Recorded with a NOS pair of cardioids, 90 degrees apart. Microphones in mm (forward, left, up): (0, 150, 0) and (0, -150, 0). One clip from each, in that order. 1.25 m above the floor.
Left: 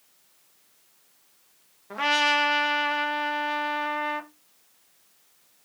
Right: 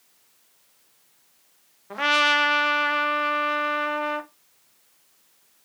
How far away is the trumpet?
About 0.7 m.